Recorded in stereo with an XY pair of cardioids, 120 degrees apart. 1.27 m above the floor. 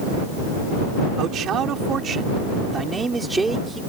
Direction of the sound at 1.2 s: 60° right.